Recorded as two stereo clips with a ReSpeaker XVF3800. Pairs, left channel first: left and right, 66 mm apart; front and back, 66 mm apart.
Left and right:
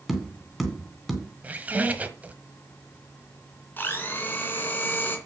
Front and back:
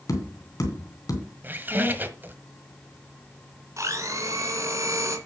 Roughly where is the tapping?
Ahead.